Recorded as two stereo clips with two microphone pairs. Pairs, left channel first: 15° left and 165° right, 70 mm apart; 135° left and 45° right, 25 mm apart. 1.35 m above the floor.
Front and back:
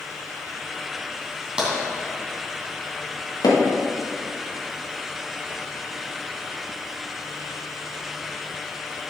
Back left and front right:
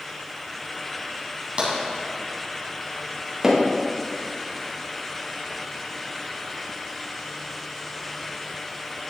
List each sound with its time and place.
1.6 s tapping: 90° right, 2.5 m
3.4 s hammering: 20° left, 1.5 m